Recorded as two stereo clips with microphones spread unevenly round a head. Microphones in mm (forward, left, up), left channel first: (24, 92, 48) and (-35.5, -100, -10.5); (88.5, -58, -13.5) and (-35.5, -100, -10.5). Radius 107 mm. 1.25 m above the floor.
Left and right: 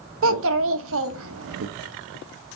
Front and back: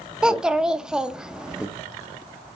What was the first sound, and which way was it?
A child speaking, 80° right.